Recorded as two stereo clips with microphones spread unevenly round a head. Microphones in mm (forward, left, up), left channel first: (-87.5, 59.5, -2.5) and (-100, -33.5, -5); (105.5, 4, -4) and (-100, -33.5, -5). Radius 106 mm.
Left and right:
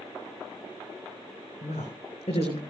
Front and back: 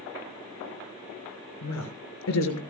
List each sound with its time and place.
1.6 s a woman speaking: 40° left, 5.5 m